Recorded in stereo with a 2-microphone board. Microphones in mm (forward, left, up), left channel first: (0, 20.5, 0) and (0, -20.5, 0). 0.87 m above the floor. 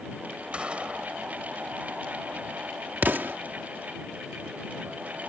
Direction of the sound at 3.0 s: 55° right (ahead or behind).